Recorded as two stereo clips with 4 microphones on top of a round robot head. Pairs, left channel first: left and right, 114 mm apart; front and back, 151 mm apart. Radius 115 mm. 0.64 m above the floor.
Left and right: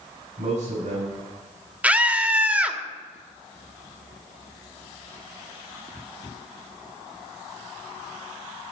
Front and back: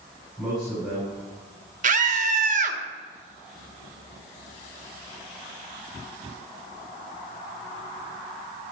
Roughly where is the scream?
Behind.